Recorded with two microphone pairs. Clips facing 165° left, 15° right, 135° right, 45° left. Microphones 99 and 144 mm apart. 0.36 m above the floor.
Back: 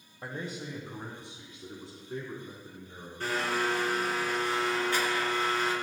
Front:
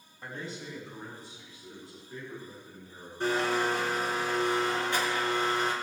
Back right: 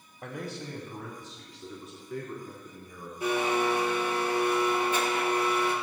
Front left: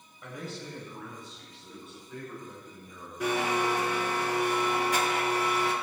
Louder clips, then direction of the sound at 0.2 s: Back 2 dB, back right 2 dB; 150° right.